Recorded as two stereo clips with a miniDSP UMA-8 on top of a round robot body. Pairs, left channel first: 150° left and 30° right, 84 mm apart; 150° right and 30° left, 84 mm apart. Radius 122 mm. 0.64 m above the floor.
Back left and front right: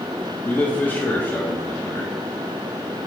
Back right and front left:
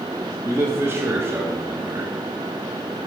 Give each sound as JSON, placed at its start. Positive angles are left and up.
{"t": 0.5, "sound": "a man speaking", "azimuth_deg": 80, "distance_m": 1.6}